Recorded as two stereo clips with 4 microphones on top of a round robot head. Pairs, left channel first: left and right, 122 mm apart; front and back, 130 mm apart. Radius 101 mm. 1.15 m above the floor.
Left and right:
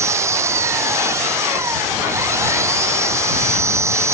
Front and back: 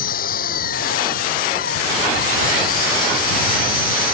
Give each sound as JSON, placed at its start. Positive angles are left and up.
{"t": 0.0, "sound": "an engine running", "azimuth_deg": -20}